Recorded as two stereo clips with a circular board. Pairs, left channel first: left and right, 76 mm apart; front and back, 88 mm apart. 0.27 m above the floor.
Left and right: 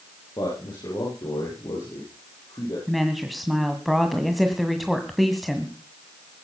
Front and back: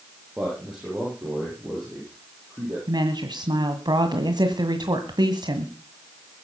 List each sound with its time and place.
0.4 s a man speaking: 100° left, 7.5 m; by 2.8 s 110° left, 9 m
2.9 s a woman speaking: straight behind, 1.8 m